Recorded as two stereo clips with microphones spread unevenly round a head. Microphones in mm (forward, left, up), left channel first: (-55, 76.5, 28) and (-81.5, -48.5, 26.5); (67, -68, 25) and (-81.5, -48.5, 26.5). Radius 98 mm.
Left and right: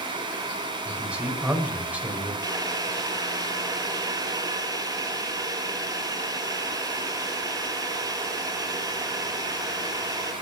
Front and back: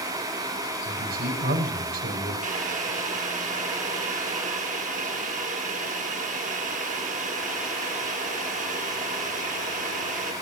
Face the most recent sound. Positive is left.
turn(degrees=-165)